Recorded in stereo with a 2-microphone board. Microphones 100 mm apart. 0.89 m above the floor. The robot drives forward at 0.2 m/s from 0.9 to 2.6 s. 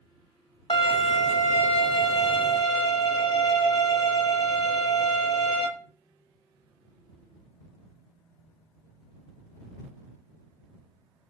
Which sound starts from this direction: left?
A violin, at 0.7 s.